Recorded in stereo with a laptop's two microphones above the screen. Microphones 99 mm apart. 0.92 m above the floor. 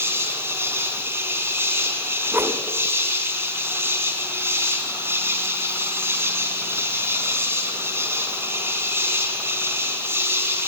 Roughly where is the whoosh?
Right.